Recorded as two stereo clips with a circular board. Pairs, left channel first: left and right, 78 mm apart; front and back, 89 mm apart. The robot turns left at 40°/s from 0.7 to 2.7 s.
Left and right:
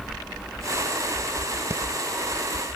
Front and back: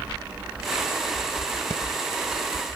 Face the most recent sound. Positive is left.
turn(degrees=-90)